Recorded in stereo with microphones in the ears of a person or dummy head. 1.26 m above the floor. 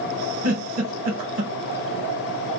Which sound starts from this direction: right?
A giggle, at 0.4 s.